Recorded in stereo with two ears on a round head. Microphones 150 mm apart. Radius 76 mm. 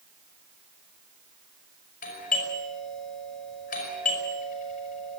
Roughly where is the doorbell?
Left.